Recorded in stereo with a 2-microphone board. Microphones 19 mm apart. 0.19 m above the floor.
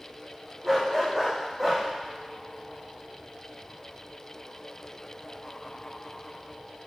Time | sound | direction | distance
0.6 | a dog barking | 10° right (ahead or behind) | 5.5 m